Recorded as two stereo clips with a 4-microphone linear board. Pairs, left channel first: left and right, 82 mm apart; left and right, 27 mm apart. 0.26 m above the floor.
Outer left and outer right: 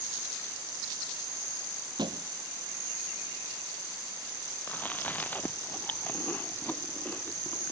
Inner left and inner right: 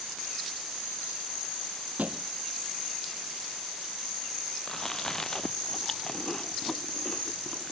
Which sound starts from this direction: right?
A thud, at 2.0 s.